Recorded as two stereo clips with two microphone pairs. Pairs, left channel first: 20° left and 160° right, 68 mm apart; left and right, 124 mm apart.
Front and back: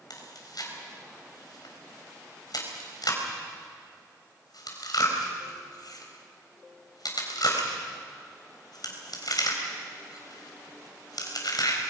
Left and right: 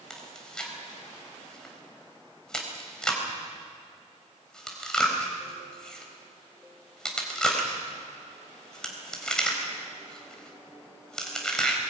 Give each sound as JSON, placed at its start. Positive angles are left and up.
{"t": 0.1, "sound": "chewing", "azimuth_deg": 5, "distance_m": 4.0}